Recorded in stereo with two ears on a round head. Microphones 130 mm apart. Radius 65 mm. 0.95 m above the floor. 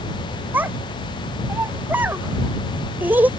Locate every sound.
0.5 s a child speaking: 15° right (ahead or behind)